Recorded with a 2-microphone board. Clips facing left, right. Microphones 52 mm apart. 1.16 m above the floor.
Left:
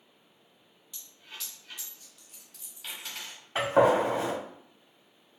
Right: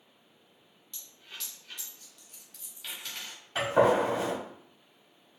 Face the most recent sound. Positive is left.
turn(degrees=20)  # may be behind; listen again after turning